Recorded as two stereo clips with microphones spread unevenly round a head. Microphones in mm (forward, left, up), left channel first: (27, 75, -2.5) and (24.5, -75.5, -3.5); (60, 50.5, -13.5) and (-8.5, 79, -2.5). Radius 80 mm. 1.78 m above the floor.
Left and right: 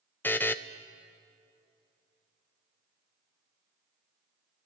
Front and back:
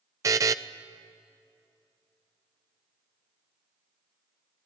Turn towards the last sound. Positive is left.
turn(degrees=165)